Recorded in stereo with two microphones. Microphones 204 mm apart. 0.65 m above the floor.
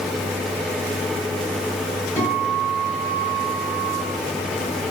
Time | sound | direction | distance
2.2 | a guitar | 10° left (ahead or behind) | 2.5 m